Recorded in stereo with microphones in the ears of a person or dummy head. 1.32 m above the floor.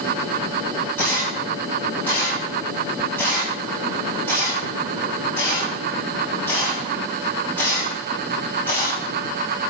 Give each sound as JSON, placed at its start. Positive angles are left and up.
{"t": 1.0, "sound": "a camera shutter", "side_deg": 15, "distance_m": 6.5}